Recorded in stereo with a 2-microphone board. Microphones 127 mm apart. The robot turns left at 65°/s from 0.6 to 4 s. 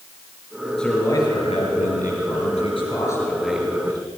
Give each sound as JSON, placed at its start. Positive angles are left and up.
{"t": 0.8, "sound": "a man speaking", "azimuth_deg": 175, "distance_m": 5.5}